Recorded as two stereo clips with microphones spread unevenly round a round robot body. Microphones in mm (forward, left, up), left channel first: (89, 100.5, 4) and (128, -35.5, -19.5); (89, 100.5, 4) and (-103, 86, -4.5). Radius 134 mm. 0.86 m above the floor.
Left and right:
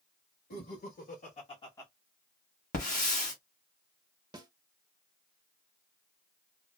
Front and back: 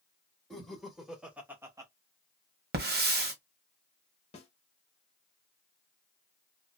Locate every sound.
0.5 s laughter: 95° left, 1.4 m; by 1.9 s 160° right, 0.7 m
2.7 s a hiss: 145° left, 1.3 m
4.3 s a snare drum: 50° right, 0.7 m